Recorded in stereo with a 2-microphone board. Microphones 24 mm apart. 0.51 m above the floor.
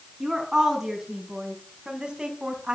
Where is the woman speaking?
10° right (ahead or behind), 5.5 m; by 2.8 s 35° right (ahead or behind), 4.5 m.